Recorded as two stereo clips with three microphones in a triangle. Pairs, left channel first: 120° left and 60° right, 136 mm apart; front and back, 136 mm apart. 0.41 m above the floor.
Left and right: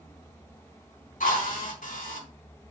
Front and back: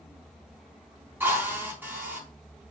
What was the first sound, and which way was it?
A drill, 105° left.